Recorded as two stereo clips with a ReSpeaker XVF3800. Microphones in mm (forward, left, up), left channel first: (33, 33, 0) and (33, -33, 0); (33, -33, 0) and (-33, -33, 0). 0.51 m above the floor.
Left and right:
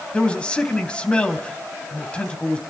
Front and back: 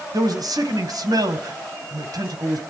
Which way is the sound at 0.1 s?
165° left.